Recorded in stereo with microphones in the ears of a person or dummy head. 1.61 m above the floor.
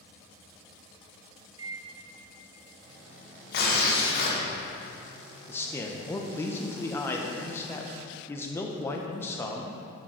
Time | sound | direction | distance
1.6 | a microwave | 25° right (ahead or behind) | 0.6 m
3.5 | tearing paper | 60° left (ahead or behind) | 1.3 m
5.5 | a man speaking | 15° left (ahead or behind) | 0.5 m